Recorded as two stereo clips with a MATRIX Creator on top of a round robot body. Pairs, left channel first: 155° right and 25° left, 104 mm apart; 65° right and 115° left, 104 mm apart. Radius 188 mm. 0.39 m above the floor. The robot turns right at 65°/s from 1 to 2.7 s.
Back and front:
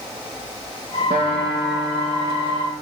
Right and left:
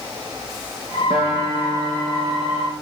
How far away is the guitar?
About 5.5 m.